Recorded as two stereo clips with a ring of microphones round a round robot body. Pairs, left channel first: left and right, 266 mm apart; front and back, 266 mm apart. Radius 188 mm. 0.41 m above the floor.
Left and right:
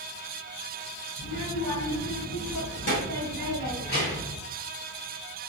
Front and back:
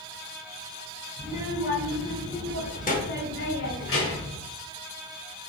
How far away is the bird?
No bird in this recording.